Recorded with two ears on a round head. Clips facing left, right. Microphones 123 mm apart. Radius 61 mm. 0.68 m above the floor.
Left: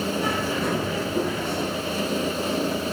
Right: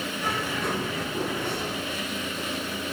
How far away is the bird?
About 9.5 m.